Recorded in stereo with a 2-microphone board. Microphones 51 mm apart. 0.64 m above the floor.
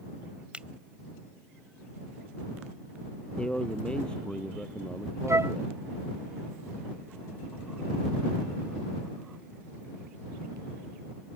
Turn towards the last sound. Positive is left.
turn(degrees=-75)  # may be behind; listen again after turning